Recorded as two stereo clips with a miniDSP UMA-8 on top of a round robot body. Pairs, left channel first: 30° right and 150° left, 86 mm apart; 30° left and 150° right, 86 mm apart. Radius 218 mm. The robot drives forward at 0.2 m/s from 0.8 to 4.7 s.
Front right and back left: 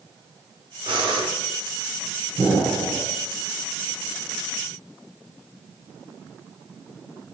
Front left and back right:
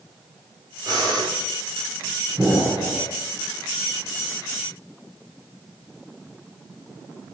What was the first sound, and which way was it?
Breathing, 170° left.